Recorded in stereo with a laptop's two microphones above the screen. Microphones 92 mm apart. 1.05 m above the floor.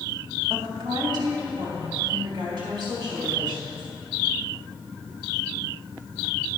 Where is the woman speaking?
50° right (ahead or behind), 2.5 m; by 3.8 s 65° right (ahead or behind), 5 m.